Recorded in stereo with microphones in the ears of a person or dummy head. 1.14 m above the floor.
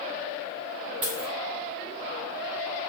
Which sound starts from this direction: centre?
A dropped coin, at 1.0 s.